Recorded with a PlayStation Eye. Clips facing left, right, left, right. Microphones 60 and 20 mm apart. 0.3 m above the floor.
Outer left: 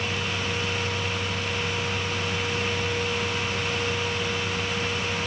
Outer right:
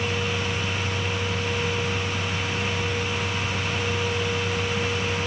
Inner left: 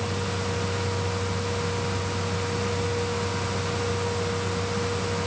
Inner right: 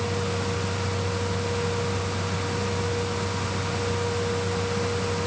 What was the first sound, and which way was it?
Only background noise.